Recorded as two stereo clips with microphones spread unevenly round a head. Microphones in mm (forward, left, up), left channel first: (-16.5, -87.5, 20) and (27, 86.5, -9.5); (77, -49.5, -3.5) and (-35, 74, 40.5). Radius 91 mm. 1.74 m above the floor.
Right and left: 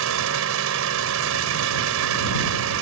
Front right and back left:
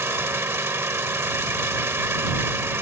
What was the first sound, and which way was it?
An engine running, 60° left.